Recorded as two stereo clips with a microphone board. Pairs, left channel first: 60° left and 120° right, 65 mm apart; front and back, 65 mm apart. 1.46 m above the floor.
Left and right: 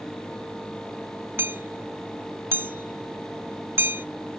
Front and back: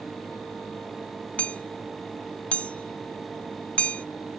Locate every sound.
1.4 s hammering: 70° right